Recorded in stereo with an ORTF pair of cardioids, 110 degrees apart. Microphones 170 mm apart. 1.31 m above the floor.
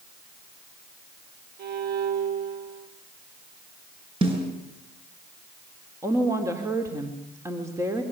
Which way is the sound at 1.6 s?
65° right.